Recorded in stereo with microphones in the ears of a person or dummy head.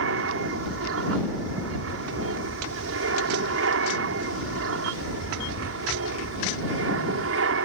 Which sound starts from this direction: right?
An aircraft, at 0.0 s.